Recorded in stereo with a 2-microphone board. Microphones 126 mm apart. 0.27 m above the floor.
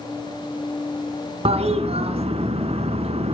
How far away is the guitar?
No guitar in this recording.